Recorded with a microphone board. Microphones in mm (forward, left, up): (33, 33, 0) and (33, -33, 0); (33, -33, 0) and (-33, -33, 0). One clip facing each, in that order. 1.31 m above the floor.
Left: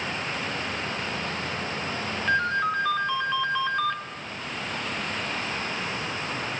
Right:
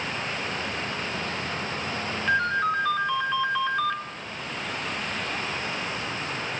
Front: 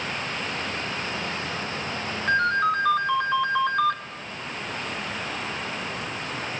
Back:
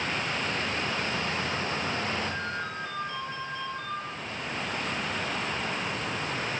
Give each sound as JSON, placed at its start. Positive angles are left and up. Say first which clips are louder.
{"t": 2.3, "sound": "a ringtone", "louder": "right 1 dB, front 12 dB", "azimuth_deg": 0, "distance_m": 3.0}